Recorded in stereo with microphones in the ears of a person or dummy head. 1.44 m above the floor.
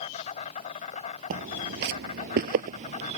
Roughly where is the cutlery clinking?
I don't hear cutlery clinking.